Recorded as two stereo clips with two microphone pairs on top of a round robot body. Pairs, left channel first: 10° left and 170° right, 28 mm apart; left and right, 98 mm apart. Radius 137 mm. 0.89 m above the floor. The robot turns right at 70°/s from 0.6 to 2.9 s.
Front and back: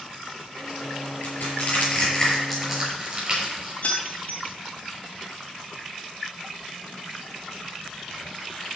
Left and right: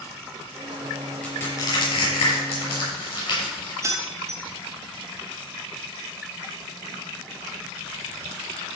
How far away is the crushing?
About 6.5 m.